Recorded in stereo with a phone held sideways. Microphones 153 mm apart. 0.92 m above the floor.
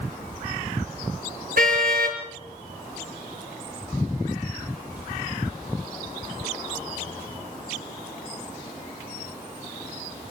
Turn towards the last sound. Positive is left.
turn(degrees=-70)  # may be behind; listen again after turning